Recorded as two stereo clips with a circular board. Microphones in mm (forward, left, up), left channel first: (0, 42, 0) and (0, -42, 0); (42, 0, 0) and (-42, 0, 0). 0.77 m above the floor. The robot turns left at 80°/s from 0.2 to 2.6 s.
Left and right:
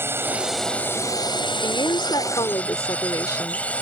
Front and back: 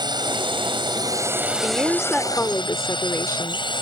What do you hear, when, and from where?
0.0 s a drone: 150° right; by 3.8 s 15° left
1.6 s a woman speaking: 125° left; by 3.7 s 50° left